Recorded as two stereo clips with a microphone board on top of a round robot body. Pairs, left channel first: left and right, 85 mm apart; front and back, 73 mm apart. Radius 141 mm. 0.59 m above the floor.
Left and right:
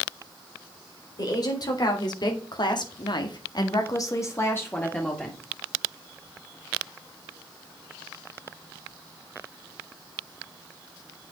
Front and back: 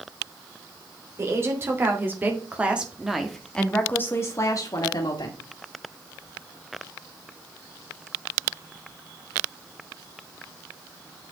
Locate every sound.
1.2 s a woman speaking: 130° left, 3.5 m; by 5.4 s 10° left, 2.5 m